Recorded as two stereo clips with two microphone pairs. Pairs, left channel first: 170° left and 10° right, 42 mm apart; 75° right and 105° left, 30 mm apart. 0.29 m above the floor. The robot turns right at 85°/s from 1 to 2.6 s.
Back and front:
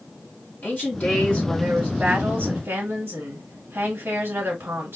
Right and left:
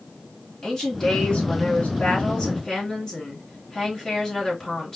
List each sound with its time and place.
0.6 s a woman speaking: 150° right, 3.5 m; by 5.0 s 10° right, 3.5 m